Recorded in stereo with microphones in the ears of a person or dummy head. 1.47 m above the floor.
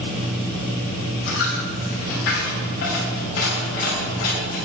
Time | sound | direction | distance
1.3 | a dropped coin | 65° left (ahead or behind) | 2.5 m